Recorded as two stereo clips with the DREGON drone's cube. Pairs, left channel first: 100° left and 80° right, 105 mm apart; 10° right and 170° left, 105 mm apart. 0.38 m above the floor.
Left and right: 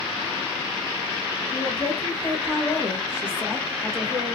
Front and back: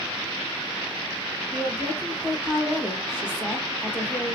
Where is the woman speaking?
60° left, 1.2 m; by 4.4 s 85° right, 1.0 m.